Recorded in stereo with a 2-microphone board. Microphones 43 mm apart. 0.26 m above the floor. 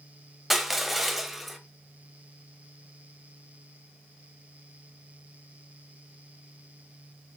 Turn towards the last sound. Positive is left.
turn(degrees=-5)  # may be behind; listen again after turning